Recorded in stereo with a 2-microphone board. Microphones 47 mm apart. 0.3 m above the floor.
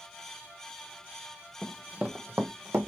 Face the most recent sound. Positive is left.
turn(degrees=-70)  # may be behind; listen again after turning